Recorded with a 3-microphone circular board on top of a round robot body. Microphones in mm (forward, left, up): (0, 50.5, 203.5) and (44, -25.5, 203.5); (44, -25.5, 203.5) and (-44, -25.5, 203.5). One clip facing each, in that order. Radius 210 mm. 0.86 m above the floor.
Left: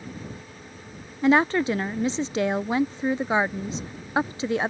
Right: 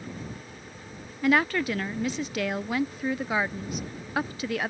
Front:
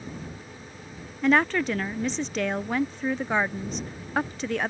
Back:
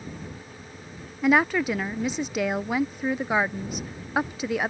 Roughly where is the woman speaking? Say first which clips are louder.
Left 4 dB, back 1 dB; left.